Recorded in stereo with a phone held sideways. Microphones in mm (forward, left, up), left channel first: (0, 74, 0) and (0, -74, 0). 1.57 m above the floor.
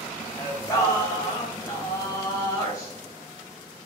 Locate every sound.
0.4 s singing: 20° left (ahead or behind), 0.7 m